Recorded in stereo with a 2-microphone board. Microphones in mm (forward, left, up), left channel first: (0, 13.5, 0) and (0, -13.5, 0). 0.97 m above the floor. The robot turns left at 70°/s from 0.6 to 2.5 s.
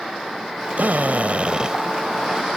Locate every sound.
0.8 s a drill: 85° right; by 1.8 s 155° right